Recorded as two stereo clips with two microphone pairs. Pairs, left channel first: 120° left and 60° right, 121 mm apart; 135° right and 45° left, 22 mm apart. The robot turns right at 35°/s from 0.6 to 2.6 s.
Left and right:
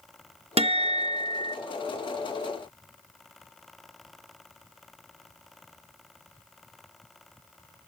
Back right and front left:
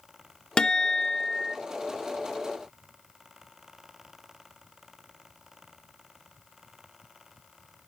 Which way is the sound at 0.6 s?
95° right.